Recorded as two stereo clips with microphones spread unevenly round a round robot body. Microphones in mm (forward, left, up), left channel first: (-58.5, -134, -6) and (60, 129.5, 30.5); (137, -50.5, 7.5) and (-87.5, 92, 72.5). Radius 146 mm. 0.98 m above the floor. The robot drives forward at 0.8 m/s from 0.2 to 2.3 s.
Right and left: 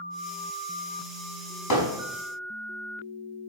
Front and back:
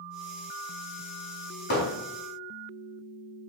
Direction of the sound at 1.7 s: 85° right.